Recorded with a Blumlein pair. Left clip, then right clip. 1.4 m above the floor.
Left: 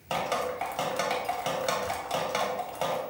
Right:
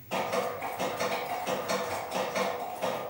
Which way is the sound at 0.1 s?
50° left.